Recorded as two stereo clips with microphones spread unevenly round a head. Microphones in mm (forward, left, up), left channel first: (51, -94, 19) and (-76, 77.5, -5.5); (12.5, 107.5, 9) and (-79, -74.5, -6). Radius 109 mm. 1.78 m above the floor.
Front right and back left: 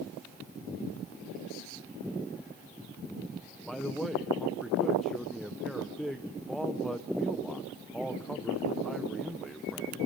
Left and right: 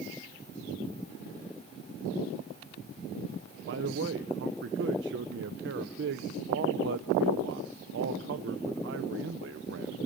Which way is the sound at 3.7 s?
140° right.